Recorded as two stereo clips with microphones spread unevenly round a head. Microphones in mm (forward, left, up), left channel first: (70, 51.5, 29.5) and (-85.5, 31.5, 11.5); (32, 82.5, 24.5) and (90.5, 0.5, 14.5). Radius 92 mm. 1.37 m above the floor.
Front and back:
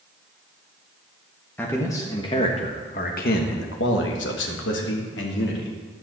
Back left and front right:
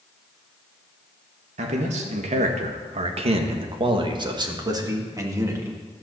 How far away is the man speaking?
About 1.7 m.